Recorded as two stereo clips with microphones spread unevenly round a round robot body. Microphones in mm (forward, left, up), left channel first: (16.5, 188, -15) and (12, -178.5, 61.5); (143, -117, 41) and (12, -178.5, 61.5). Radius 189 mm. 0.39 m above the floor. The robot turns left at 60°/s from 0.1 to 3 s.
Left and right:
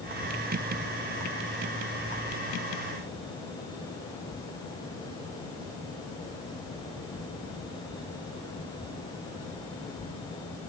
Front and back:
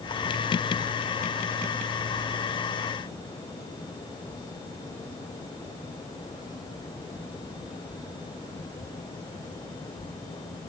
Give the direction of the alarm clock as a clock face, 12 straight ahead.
No alarm clock in this recording.